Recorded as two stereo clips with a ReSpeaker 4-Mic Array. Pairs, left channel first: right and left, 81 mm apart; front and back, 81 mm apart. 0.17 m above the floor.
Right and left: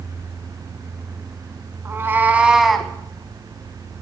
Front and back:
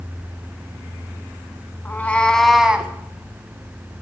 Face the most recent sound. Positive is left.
turn(degrees=-155)